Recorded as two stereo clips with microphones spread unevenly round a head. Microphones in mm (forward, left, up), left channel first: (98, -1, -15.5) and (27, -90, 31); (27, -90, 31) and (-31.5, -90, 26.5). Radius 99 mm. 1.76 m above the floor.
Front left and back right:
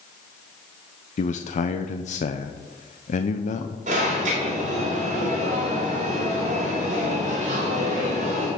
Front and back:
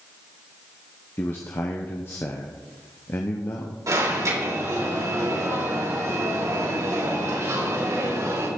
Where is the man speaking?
40° left, 0.7 m.